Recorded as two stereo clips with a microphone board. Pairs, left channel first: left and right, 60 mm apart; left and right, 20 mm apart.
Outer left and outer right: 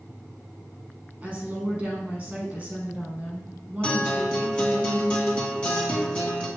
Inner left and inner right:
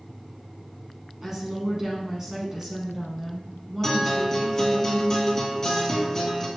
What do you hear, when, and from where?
1.2 s a woman speaking: 25° right (ahead or behind), 1.1 m
3.8 s a guitar: 20° left (ahead or behind), 1.6 m